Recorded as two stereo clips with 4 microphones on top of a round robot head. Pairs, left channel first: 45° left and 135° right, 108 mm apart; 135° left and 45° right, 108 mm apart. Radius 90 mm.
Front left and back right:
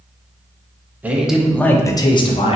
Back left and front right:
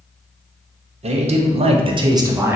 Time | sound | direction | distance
1.0 | a man speaking | 60° right | 0.7 m